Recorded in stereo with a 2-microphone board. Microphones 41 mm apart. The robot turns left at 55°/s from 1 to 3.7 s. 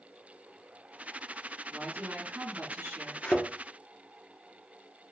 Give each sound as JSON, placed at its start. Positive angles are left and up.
{"t": 1.7, "sound": "a woman speaking", "azimuth_deg": -35, "distance_m": 1.9}
{"t": 3.2, "sound": "a thud", "side_deg": 35, "distance_m": 1.2}